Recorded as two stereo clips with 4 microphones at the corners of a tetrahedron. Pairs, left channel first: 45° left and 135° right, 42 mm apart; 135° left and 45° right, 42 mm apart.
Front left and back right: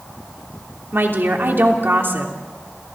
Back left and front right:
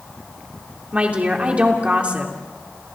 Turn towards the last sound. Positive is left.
turn(degrees=-105)